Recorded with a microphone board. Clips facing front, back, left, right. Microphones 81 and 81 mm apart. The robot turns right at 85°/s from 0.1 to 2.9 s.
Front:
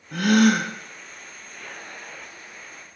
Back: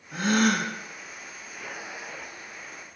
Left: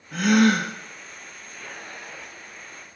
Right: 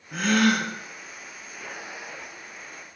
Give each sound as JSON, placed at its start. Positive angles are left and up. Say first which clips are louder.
{"t": 0.1, "sound": "a gasp", "louder": "front 5 dB, left 3 dB", "azimuth_deg": -5, "distance_m": 3.0}